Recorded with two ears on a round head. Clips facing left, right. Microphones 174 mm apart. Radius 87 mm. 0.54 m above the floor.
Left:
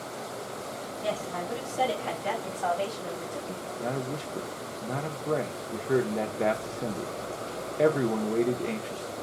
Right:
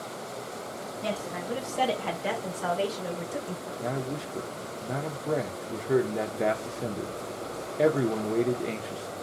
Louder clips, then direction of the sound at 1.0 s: Left 1 dB; 45° right (ahead or behind).